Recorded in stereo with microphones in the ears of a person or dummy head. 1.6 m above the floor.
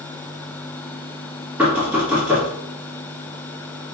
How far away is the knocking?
About 1.9 m.